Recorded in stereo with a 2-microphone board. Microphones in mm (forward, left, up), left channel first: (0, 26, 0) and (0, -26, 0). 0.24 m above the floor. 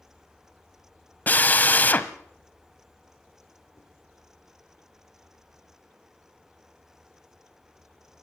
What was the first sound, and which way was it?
A drill, 35° left (ahead or behind).